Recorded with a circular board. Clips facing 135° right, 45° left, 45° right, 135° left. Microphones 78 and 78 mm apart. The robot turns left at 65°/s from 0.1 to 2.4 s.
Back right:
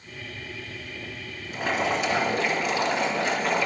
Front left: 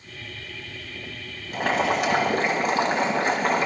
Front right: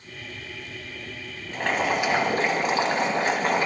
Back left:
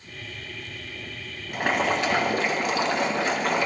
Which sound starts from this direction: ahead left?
Boiling, at 1.5 s.